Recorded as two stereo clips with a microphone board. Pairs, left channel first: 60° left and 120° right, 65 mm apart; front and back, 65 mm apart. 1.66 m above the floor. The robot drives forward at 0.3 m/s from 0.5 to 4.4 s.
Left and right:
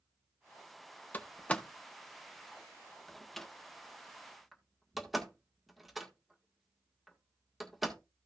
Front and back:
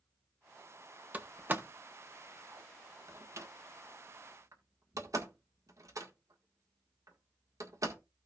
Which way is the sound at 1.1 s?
120° left.